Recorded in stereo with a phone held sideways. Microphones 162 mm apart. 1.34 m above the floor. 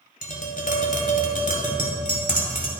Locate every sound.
0.2 s tapping: 60° left (ahead or behind), 2.0 m